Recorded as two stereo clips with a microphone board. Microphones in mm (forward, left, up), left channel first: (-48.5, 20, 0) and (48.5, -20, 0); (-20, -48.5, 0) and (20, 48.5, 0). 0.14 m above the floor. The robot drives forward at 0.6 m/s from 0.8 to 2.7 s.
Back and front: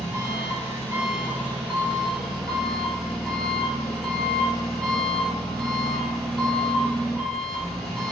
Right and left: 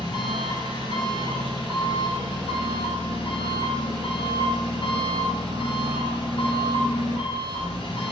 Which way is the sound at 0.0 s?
85° right.